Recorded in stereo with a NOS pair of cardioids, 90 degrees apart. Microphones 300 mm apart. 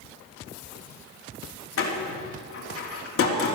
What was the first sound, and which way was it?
A door slam, 45° left.